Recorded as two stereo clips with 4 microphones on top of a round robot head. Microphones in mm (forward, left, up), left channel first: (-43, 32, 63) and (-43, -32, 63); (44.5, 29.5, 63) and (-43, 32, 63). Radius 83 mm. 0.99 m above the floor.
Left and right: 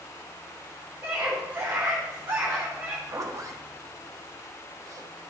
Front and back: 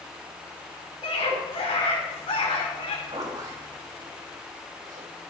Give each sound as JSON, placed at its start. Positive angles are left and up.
{"t": 1.0, "sound": "a scream", "azimuth_deg": -25, "distance_m": 3.5}
{"t": 3.1, "sound": "a zipper", "azimuth_deg": -125, "distance_m": 1.3}